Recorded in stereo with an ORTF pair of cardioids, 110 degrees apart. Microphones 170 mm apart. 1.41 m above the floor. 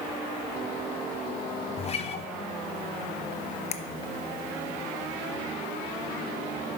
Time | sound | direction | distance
1.8 | a guitar | 35° left | 0.6 m
3.7 | a finger snap | 40° left | 0.5 m